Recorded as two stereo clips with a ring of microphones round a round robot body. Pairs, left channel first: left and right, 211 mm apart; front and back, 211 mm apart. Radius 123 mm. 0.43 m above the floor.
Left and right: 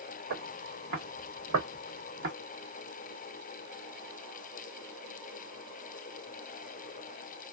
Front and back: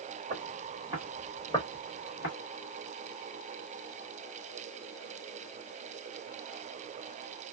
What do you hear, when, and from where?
0.3 s footsteps: 120° right, 1.3 m; by 2.3 s 45° right, 1.1 m